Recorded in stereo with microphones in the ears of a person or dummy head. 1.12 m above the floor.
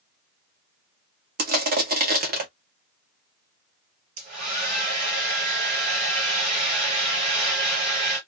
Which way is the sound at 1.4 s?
45° right (ahead or behind).